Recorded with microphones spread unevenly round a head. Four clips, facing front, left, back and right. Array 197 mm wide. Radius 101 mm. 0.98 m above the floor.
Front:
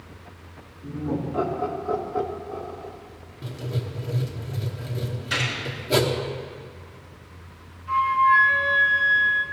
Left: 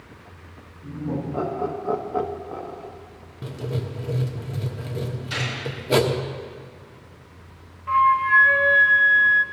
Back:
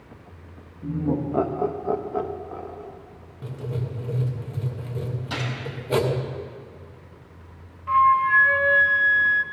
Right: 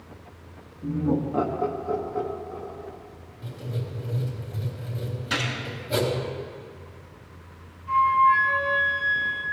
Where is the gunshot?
150° right, 2 m.